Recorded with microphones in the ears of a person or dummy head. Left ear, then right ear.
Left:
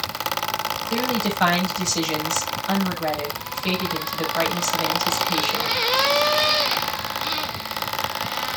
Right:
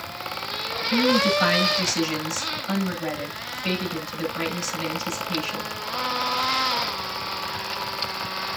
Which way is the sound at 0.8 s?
20° left (ahead or behind).